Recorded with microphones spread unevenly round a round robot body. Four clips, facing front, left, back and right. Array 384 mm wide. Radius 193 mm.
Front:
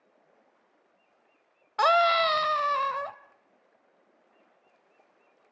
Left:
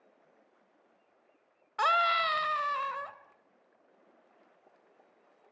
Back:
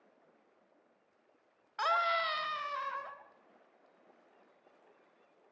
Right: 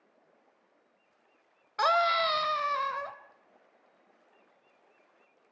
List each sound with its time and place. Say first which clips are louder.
1.8 s a scream: right 2 dB, front 10 dB; 10° right, 1.6 m